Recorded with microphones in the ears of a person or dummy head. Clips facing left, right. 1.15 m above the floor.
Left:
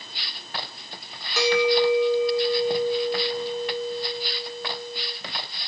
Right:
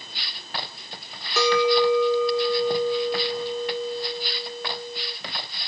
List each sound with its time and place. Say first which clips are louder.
1.4 s a clink: right 1 dB; 45° right (ahead or behind), 1.1 m